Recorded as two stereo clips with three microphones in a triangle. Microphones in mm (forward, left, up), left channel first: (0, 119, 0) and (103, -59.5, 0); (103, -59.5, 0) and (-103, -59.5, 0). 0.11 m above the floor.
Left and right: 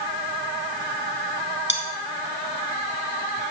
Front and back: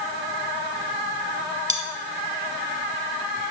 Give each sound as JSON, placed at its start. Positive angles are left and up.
{"t": 1.7, "sound": "cutlery clinking", "azimuth_deg": 135, "distance_m": 2.0}